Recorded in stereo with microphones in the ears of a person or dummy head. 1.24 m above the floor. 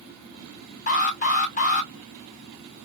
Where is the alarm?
35° left (ahead or behind), 1.1 m.